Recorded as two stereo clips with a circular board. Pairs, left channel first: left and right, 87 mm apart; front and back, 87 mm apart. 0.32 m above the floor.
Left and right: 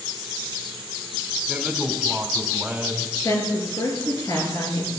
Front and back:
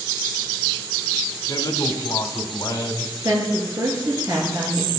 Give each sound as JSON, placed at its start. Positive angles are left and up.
{"t": 1.5, "sound": "a man speaking", "azimuth_deg": -15, "distance_m": 1.5}
{"t": 3.2, "sound": "a woman speaking", "azimuth_deg": 130, "distance_m": 5.0}